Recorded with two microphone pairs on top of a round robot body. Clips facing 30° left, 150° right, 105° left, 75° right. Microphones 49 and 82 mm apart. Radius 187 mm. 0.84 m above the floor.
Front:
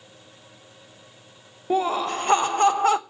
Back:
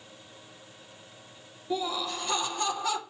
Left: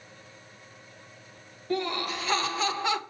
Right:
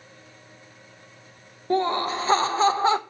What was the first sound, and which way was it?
Laughter, 15° right.